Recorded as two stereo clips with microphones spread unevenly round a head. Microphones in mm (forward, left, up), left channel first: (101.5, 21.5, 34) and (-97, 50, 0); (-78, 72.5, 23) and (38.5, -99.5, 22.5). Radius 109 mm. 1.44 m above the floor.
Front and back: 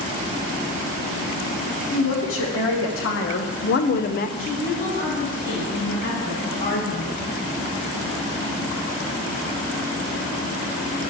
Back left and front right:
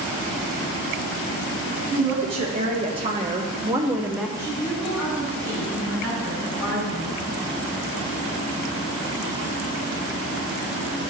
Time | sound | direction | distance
1.9 | a woman speaking | 5° left | 1.6 m
4.4 | a woman speaking | 40° left | 4 m